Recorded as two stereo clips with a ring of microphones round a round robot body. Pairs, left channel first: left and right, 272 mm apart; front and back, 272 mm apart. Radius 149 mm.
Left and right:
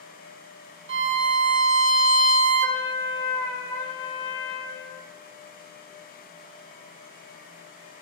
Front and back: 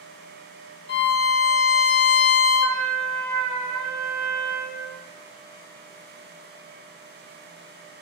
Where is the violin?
50° right, 0.9 m.